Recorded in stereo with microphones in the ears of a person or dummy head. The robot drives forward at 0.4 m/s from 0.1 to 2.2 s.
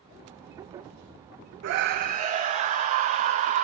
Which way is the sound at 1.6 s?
60° right (ahead or behind).